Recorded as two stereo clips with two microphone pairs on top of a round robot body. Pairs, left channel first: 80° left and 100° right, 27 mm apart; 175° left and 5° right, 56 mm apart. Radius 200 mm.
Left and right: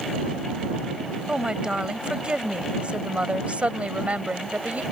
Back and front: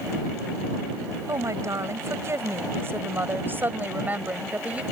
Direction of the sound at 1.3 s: 40° right.